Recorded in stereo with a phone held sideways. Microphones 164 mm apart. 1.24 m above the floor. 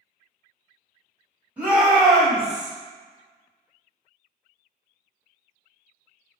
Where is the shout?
10° right (ahead or behind), 1.9 m; by 2.7 s 55° right (ahead or behind), 0.5 m.